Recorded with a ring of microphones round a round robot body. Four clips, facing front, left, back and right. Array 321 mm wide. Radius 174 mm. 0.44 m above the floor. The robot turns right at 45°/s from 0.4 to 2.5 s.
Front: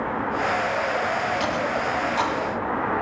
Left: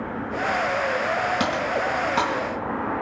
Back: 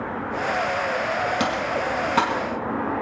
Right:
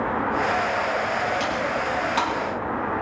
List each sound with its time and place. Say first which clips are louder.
1.4 s typing on a keyboard: left 1 dB, even; 130° left, 3 m; by 2.4 s 175° left, 3 m